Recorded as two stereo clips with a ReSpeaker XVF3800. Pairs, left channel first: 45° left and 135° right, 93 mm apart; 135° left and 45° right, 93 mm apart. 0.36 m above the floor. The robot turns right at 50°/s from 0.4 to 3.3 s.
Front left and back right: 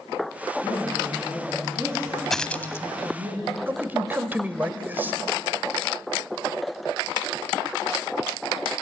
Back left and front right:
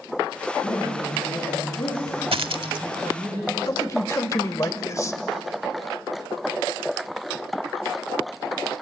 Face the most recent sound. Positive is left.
turn(degrees=165)